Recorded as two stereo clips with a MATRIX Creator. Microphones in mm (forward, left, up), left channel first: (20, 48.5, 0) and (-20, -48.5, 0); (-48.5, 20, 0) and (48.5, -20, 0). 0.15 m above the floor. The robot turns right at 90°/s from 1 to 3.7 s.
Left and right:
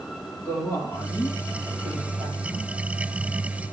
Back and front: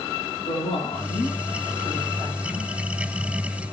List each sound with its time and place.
0.5 s a woman speaking: 130° left, 5.5 m; by 2.7 s 75° right, 5.5 m